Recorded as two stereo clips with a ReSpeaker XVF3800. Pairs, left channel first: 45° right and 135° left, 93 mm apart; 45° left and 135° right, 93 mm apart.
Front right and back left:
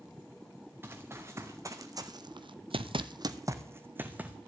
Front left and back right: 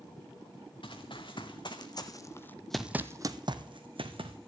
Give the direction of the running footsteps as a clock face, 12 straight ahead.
10 o'clock.